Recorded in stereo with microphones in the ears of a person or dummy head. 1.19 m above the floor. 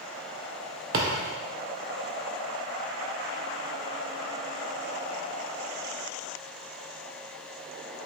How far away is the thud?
About 0.6 m.